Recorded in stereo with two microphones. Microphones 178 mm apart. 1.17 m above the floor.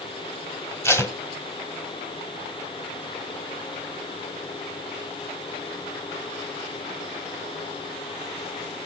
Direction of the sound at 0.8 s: 15° left (ahead or behind).